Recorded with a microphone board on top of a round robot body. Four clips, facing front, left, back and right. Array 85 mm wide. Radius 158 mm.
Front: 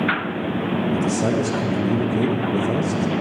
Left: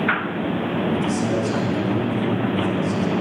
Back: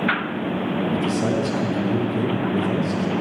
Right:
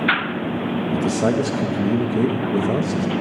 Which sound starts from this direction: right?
A man speaking, at 0.9 s.